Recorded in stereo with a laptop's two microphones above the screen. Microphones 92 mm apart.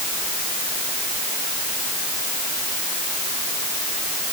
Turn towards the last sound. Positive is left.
No sound to turn to.